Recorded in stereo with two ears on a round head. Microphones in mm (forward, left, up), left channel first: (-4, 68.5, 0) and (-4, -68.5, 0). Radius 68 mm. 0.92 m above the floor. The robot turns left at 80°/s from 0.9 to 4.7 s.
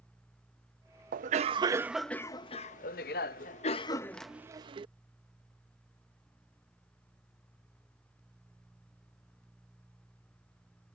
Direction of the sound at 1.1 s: 110° right.